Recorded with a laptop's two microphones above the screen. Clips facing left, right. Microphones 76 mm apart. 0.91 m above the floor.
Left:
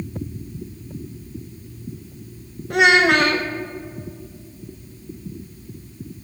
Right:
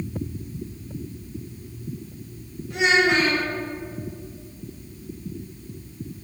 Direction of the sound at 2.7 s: 60° left (ahead or behind).